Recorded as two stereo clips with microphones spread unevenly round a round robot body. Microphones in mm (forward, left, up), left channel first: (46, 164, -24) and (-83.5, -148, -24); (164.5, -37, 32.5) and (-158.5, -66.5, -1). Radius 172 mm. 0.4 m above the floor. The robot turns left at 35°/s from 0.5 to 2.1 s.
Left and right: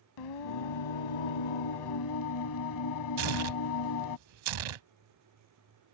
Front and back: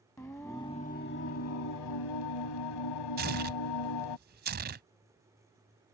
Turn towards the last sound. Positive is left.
turn(degrees=-110)